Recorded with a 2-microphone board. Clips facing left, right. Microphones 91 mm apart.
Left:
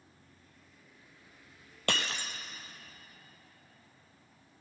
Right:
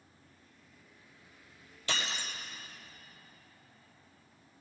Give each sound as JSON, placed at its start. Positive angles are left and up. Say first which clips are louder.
{"t": 1.9, "sound": "breaking glass", "louder": "left 3 dB", "side_deg": 60, "distance_m": 1.3}